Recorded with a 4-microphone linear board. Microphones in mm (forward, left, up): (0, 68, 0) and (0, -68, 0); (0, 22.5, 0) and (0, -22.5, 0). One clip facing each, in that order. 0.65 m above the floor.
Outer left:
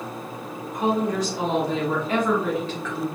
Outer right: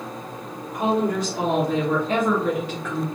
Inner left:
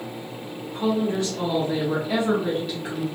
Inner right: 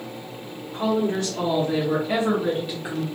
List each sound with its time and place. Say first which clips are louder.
0.7 s a woman speaking: outer right 1 dB, inner right 1 dB; 60° right (ahead or behind), 1.2 m; by 3.0 s 10° right (ahead or behind), 1.6 m